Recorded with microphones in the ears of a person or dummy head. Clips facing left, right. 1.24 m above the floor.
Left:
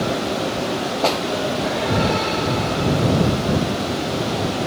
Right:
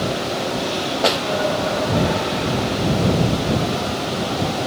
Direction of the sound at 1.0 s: 20° right (ahead or behind).